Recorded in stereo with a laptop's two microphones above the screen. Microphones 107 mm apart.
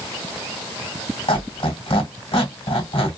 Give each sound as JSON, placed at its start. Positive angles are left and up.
{"t": 1.3, "sound": "a squeak", "side_deg": 65, "distance_m": 1.6}